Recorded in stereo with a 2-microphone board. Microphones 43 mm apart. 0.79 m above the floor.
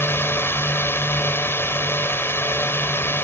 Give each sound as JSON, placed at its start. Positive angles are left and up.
{"t": 0.0, "sound": "a drone", "side_deg": 60}